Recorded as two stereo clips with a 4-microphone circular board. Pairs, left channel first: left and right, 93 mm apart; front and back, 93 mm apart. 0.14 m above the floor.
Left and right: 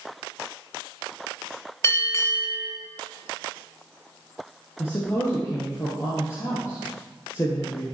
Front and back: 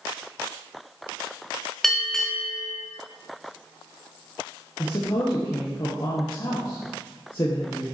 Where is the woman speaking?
35° left, 2 m.